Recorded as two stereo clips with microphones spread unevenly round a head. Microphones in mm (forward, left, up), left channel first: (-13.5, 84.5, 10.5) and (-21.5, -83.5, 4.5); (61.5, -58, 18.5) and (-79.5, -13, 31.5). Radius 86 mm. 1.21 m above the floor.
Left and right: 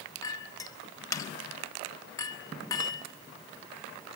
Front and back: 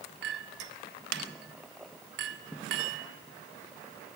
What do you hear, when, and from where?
0.2 s a clink: 155° left, 1.4 m